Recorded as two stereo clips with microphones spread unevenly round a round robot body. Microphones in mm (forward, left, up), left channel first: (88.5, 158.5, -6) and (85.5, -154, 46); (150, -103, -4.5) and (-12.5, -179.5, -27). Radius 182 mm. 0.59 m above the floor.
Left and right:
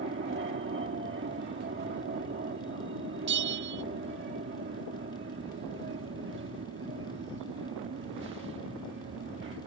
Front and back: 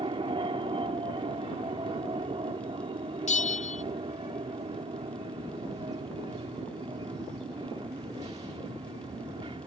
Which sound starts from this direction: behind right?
An aircraft, at 0.0 s.